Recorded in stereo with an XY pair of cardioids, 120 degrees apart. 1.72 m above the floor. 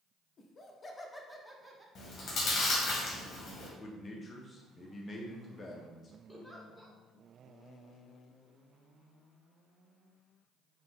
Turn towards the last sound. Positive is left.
turn(degrees=0)